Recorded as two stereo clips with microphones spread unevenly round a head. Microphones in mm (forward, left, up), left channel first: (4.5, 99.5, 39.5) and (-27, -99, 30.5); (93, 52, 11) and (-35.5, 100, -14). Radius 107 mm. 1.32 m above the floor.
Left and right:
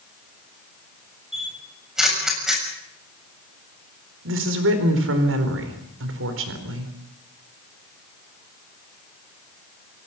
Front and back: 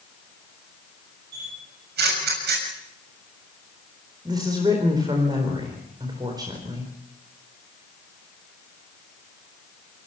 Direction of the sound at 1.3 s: 175° left.